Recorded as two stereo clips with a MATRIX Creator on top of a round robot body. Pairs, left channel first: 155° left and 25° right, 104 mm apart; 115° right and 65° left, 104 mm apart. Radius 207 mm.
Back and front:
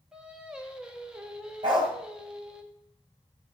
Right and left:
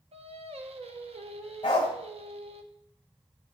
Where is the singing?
60° left, 1.4 m.